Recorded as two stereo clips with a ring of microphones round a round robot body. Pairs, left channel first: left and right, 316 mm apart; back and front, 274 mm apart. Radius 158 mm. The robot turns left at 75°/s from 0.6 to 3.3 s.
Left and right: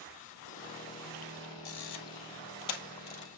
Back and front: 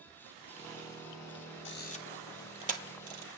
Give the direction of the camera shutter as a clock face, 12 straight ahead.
7 o'clock.